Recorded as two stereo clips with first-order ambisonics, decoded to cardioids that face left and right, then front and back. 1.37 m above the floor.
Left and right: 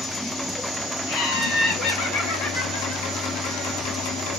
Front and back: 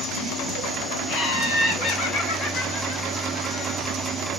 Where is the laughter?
50° left, 1.2 m; by 3.8 s 10° left, 2.5 m.